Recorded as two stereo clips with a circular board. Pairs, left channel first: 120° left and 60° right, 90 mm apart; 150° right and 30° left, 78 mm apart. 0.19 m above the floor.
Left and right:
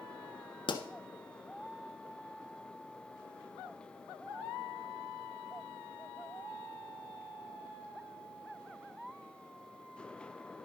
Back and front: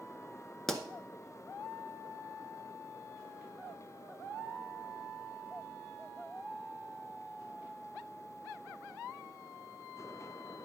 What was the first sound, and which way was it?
A pop, 125° left.